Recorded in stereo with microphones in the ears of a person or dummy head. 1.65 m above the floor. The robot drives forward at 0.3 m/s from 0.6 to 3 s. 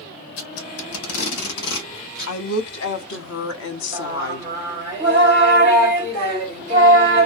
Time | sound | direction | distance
0.4 | tape being pulled | 80° left | 1.2 m
2.3 | a woman speaking | 80° left | 0.7 m
3.9 | singing | 10° left (ahead or behind) | 2.0 m